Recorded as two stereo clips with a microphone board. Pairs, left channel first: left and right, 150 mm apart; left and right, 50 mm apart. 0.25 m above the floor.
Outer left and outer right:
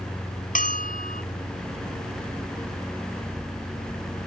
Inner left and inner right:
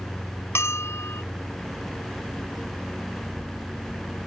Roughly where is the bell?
Left.